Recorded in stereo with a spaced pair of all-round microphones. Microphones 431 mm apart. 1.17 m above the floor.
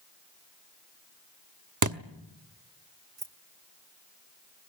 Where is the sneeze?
I don't hear a sneeze.